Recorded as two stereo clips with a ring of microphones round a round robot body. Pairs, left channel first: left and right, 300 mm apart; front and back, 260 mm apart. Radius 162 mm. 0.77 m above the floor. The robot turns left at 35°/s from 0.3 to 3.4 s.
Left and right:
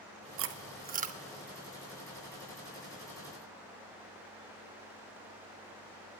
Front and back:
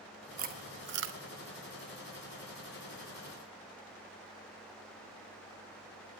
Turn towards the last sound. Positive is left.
turn(degrees=125)